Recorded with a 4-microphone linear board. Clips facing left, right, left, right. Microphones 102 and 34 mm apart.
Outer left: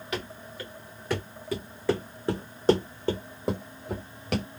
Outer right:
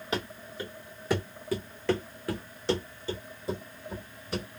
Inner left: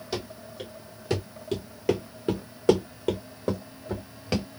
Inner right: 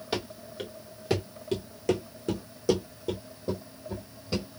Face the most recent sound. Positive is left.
turn(degrees=85)